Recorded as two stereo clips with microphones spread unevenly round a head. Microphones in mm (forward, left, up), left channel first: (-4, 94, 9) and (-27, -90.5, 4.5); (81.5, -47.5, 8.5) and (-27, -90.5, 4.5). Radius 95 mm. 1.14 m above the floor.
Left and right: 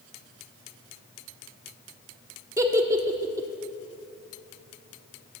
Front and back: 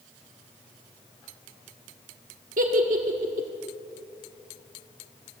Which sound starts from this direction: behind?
A giggle, at 2.6 s.